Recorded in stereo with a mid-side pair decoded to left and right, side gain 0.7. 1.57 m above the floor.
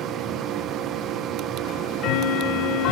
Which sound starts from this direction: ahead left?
Ticking, at 1.6 s.